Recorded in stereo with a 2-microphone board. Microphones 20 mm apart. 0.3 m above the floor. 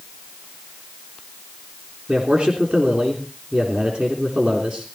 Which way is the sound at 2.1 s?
60° right (ahead or behind).